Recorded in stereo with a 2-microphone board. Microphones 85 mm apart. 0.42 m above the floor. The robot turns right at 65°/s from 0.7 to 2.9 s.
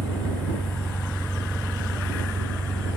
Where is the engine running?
125° left; by 3.0 s 95° right.